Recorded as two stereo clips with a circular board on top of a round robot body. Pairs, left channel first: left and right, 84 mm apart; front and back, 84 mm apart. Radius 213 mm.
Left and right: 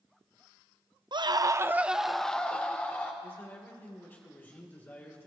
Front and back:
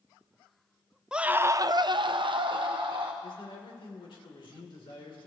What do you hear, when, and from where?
1.1 s a scream: 100° right, 0.8 m; by 3.1 s 155° left, 1.6 m
3.2 s a man speaking: 25° left, 2.5 m